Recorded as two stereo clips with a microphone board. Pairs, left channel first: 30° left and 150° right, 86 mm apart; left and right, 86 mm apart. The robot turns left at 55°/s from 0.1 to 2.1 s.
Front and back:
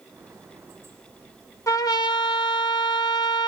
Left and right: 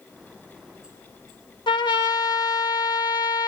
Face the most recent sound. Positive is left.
turn(degrees=60)